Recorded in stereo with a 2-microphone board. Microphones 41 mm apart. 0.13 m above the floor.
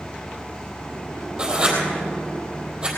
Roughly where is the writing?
Centre.